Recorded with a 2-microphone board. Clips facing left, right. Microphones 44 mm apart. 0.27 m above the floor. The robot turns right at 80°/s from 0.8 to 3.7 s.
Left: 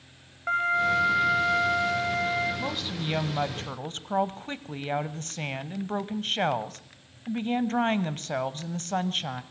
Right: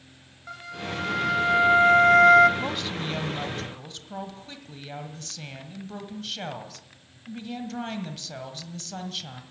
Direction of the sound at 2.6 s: 10° right.